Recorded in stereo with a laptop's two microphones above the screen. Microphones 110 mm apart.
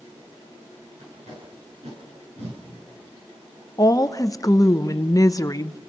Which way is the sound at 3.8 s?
30° left (ahead or behind).